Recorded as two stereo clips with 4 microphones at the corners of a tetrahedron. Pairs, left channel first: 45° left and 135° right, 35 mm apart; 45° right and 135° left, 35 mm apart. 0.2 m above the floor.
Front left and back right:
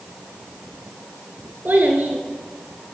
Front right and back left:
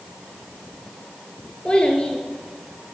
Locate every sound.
1.6 s a child speaking: 105° right, 2 m